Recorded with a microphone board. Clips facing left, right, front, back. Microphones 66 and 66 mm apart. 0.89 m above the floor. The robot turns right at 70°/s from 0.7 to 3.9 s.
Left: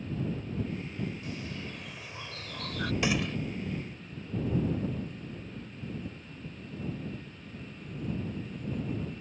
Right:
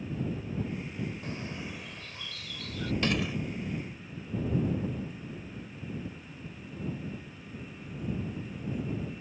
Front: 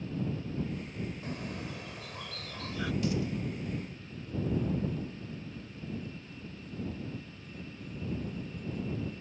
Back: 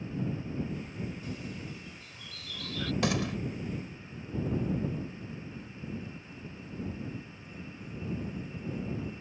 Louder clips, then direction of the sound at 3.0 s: Even, back 4 dB; 170° left.